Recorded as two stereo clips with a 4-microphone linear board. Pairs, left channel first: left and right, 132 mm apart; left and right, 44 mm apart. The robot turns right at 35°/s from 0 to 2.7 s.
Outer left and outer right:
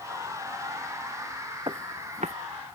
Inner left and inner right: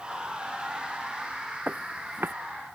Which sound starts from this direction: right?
Footsteps, at 1.7 s.